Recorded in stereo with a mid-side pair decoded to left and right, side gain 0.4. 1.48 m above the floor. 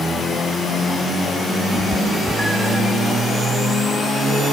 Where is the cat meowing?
5° right, 3.5 m.